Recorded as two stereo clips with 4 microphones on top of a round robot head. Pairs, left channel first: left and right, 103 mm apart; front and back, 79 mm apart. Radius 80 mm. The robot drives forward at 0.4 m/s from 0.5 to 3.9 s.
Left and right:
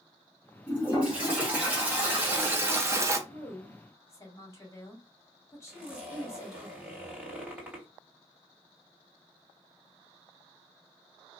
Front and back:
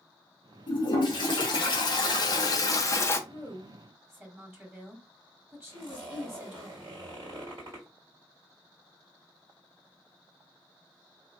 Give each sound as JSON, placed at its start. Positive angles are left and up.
{"t": 0.7, "sound": "a toilet flushing", "azimuth_deg": -10, "distance_m": 1.4}
{"t": 3.3, "sound": "a woman speaking", "azimuth_deg": 120, "distance_m": 1.2}
{"t": 5.7, "sound": "a zipper", "azimuth_deg": -165, "distance_m": 2.0}